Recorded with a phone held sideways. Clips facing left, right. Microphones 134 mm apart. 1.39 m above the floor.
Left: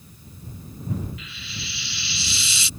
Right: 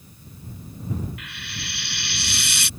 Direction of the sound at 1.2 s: 65° right (ahead or behind).